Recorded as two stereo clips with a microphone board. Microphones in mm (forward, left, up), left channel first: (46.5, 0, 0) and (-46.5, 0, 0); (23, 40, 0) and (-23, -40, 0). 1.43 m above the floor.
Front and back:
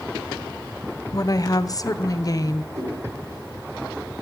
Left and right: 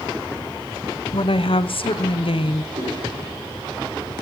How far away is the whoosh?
About 10 m.